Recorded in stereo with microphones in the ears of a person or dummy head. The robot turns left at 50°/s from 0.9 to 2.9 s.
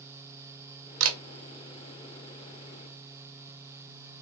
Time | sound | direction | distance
1.0 | a camera shutter | 70° right (ahead or behind) | 0.8 m